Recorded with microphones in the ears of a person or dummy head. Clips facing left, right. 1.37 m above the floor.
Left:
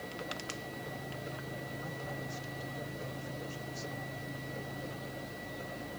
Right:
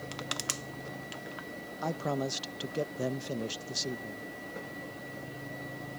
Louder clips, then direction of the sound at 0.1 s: Right 1 dB; 60° right (ahead or behind).